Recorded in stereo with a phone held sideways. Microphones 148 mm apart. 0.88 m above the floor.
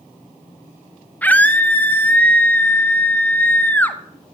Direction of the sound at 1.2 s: 10° left (ahead or behind).